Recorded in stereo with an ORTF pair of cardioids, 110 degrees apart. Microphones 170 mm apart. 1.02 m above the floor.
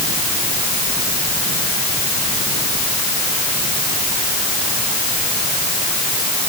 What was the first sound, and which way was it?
Only background noise.